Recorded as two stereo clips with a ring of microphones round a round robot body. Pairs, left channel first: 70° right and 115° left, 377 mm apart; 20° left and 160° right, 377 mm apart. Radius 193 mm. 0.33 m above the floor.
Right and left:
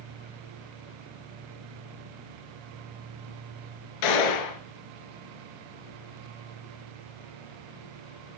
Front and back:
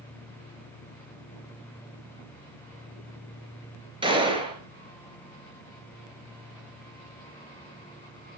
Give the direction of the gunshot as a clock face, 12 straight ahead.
3 o'clock.